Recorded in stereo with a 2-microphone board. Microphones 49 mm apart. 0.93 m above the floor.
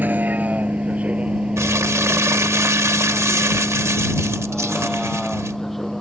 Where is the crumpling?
75° right (ahead or behind).